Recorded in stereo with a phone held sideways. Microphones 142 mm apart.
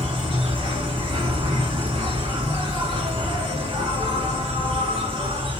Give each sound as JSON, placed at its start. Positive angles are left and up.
{"t": 0.0, "sound": "an insect", "side_deg": -40, "distance_m": 1.0}